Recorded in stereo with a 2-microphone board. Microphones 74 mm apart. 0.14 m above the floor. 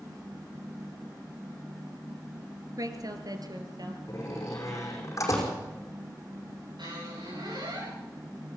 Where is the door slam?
45° left (ahead or behind), 5 m.